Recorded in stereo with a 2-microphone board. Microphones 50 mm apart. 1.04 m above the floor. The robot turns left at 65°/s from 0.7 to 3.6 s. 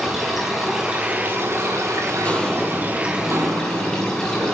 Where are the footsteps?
25° left (ahead or behind), 2.0 m; by 4.5 s 70° right (ahead or behind), 2.5 m.